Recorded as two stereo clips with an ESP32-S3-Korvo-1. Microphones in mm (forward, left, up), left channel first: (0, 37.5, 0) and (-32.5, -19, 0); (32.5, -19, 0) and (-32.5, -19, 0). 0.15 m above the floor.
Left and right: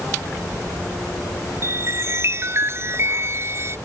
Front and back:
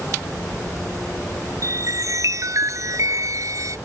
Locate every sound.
1.6 s a chime: 160° right